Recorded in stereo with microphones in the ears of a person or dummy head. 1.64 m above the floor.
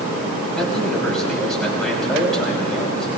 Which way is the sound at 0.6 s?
5° left (ahead or behind).